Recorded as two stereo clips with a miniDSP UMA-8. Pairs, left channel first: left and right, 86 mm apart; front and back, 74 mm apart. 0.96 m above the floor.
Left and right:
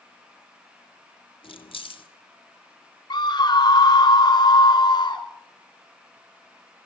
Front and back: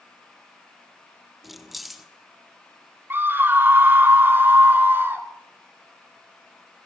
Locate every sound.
1.4 s keys jangling: 90° left, 1.4 m
3.1 s a scream: 120° left, 3 m